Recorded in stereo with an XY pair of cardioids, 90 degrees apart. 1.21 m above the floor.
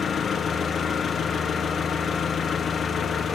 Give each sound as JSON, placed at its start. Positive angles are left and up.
{"t": 0.0, "sound": "an engine running", "azimuth_deg": 50, "distance_m": 1.0}